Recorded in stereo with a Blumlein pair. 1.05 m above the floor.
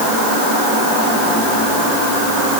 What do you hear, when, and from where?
Only background noise.